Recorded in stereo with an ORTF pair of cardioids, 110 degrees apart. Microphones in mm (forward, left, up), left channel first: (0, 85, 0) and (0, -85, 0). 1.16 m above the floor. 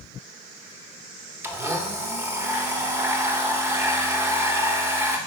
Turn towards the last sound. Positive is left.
turn(degrees=-15)